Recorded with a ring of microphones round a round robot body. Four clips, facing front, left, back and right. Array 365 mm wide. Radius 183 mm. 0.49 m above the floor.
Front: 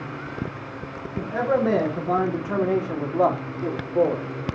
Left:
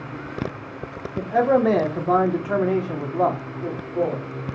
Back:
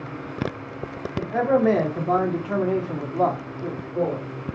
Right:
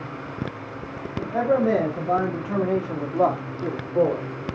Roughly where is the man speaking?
Behind left.